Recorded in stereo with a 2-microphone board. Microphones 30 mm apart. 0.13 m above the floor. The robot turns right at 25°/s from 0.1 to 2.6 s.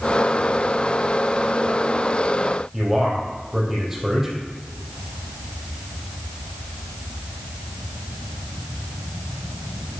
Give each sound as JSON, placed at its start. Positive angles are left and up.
{"t": 2.7, "sound": "a man speaking", "side_deg": -10, "distance_m": 4.0}